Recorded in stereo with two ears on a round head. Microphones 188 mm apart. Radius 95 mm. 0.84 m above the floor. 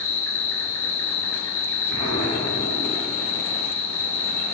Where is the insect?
80° left, 3.5 m.